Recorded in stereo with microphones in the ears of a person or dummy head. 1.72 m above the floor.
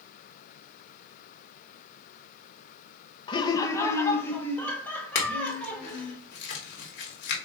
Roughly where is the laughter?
Left.